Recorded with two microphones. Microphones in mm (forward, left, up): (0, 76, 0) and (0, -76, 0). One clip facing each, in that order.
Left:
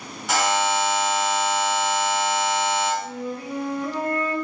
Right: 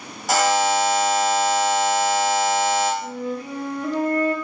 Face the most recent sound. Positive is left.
turn(degrees=-30)  # may be behind; listen again after turning